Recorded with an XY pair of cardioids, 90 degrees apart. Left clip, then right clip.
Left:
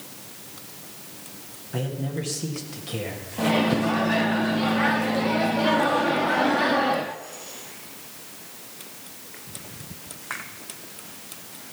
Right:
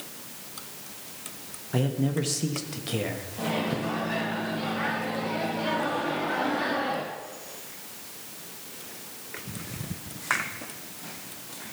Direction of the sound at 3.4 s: 50° left.